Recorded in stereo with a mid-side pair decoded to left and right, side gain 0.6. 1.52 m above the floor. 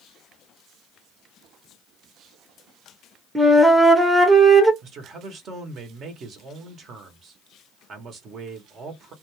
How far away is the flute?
About 0.8 m.